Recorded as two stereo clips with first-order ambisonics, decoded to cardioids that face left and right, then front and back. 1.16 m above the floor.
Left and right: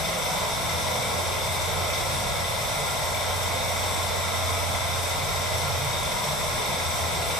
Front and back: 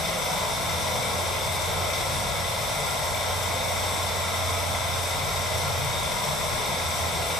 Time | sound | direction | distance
0.0 | running water | 50° left | 1.2 m